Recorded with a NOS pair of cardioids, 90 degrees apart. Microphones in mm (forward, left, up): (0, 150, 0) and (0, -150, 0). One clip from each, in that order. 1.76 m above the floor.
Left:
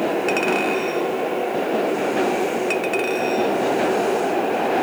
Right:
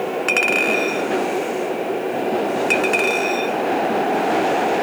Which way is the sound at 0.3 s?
40° right.